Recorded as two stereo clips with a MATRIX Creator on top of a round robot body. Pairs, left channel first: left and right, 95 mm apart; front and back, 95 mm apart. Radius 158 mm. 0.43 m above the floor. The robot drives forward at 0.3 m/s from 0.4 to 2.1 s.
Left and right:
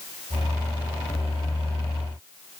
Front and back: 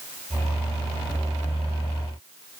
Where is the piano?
I don't hear a piano.